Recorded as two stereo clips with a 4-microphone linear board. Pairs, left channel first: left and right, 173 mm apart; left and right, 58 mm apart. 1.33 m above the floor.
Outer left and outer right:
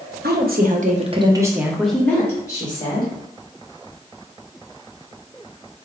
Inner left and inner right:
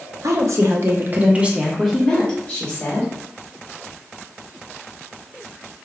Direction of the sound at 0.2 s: 75° right (ahead or behind).